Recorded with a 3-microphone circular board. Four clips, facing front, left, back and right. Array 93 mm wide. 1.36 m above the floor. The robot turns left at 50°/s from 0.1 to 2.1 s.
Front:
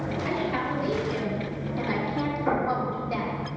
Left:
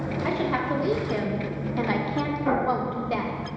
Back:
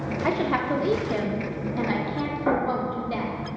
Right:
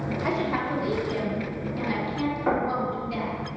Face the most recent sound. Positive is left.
turn(degrees=-135)